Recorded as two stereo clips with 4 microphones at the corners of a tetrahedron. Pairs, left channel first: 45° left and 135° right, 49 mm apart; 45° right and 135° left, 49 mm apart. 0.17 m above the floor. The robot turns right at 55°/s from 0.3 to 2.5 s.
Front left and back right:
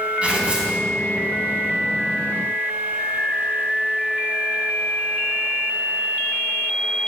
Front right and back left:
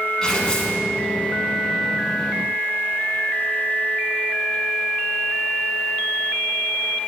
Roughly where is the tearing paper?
Right.